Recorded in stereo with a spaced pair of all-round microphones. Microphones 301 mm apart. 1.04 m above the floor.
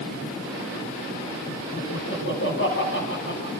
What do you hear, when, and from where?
1.8 s laughter: 40° left (ahead or behind), 9 m